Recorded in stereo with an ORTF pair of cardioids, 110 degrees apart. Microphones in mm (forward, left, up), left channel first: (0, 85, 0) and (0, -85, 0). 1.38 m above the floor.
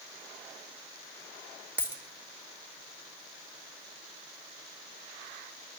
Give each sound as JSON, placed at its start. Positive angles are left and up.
{"t": 1.8, "sound": "a dropped coin", "azimuth_deg": -10, "distance_m": 3.0}